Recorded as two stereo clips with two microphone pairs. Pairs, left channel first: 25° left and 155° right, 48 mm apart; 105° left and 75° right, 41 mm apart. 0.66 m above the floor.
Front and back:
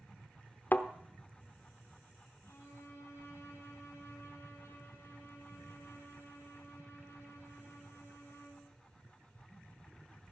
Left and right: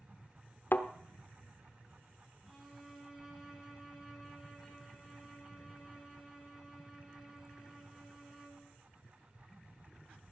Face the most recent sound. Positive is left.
turn(degrees=5)